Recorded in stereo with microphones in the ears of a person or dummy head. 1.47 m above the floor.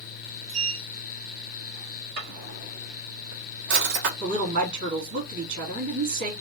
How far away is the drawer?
About 1.5 m.